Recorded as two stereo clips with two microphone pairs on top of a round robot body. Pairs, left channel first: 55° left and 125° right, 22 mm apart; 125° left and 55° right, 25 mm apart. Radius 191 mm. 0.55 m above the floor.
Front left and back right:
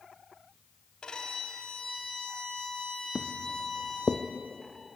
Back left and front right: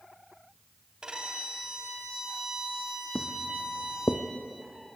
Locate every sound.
1.0 s a violin: 5° left, 2.5 m
3.1 s footsteps: 145° left, 1.0 m; by 4.2 s 115° left, 1.2 m